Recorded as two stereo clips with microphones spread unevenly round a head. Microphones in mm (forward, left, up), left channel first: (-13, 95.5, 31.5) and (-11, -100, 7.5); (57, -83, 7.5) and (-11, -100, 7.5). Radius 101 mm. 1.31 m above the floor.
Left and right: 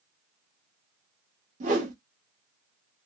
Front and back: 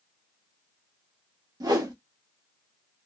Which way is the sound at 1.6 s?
140° right.